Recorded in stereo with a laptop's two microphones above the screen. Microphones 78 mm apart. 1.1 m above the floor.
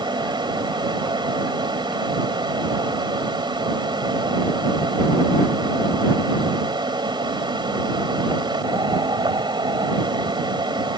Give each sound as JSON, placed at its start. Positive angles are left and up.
{"t": 0.0, "sound": "a fan", "side_deg": -75}